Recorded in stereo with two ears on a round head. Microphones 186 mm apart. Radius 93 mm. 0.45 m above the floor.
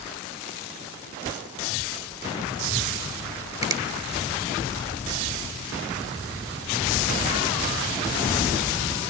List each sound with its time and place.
3.6 s a finger snap: 20° right (ahead or behind), 1.3 m